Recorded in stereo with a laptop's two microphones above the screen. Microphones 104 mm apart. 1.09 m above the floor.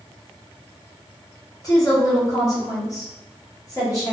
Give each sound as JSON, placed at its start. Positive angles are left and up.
{"t": 1.6, "sound": "a woman speaking", "side_deg": 35, "distance_m": 0.8}